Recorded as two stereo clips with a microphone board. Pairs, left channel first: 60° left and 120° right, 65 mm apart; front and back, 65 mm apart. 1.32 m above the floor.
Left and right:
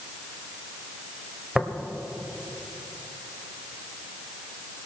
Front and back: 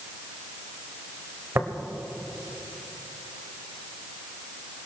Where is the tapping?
160° left, 1.4 m.